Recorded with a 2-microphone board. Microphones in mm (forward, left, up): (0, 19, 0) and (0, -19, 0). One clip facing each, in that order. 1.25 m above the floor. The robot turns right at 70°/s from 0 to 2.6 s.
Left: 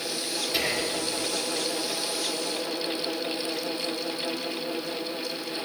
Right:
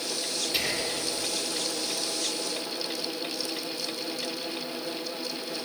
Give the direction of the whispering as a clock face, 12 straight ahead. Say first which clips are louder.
Left 3 dB; 12 o'clock.